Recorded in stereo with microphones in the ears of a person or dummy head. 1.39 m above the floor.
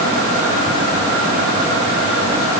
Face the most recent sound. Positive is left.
No sound to turn to.